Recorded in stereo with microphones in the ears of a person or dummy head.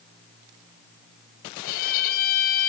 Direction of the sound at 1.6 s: 50° left (ahead or behind).